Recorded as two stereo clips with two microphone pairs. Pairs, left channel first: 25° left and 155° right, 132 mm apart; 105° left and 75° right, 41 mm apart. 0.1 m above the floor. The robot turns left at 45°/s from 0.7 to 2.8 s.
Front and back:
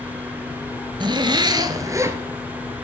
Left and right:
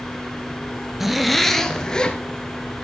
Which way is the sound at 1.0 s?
155° right.